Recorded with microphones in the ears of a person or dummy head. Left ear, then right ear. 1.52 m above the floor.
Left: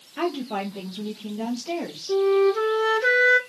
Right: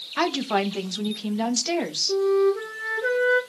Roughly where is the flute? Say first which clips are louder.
Left 2 dB; left.